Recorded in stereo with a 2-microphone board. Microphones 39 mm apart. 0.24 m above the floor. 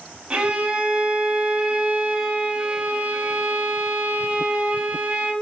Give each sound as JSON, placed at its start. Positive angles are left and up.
{"t": 0.3, "sound": "a violin", "side_deg": -25, "distance_m": 0.6}